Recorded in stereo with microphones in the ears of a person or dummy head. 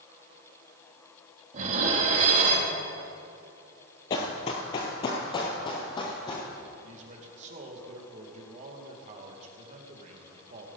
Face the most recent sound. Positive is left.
turn(degrees=-40)  # may be behind; listen again after turning